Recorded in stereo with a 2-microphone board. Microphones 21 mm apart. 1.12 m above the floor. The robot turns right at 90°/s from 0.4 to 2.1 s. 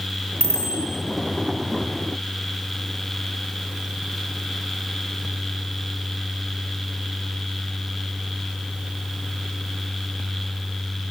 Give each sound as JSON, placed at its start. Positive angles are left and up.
{"t": 0.4, "sound": "a bicycle bell", "azimuth_deg": 90, "distance_m": 3.5}